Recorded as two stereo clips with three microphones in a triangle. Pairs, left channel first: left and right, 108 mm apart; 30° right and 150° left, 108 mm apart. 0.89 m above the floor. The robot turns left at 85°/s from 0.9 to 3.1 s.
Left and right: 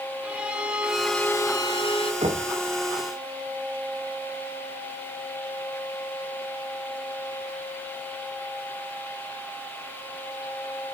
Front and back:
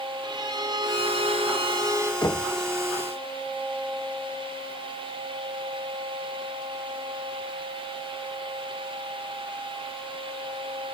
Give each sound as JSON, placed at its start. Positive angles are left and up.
{"t": 0.2, "sound": "a violin", "azimuth_deg": -170, "distance_m": 1.3}
{"t": 2.2, "sound": "knocking", "azimuth_deg": -75, "distance_m": 1.7}